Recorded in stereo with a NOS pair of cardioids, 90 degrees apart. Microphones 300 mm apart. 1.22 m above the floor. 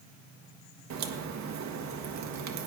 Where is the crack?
65° right, 1.2 m.